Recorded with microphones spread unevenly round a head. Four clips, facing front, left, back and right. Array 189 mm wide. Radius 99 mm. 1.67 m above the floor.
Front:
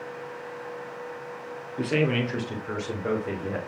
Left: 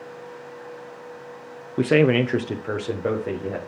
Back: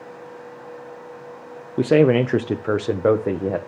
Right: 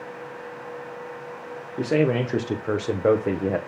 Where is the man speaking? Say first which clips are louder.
Left 4 dB, back 10 dB; 155° left, 0.8 m; by 3.6 s 155° right, 1.3 m.